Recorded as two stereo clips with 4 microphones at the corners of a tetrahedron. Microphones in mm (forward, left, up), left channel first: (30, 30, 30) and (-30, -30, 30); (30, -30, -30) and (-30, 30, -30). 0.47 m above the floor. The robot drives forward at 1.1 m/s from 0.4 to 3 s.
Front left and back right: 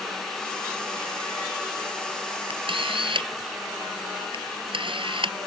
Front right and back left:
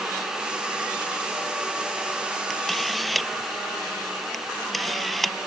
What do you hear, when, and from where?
2.5 s a camera shutter: 130° right; by 5.3 s 135° right